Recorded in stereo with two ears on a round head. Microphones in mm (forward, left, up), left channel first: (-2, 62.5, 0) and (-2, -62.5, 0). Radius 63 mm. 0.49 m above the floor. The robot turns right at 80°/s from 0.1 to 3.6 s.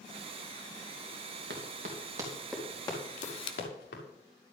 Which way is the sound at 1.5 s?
80° right.